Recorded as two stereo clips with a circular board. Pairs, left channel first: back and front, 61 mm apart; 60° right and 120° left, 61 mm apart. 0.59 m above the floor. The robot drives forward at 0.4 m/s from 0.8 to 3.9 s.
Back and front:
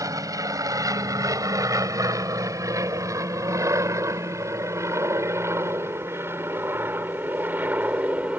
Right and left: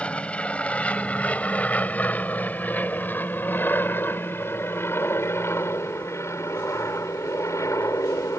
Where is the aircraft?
10° left; by 8.4 s 60° right.